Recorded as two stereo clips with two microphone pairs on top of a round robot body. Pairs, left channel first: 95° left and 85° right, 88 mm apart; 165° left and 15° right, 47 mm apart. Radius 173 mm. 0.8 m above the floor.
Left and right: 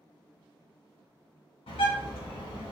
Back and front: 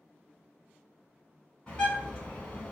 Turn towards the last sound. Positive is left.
turn(degrees=100)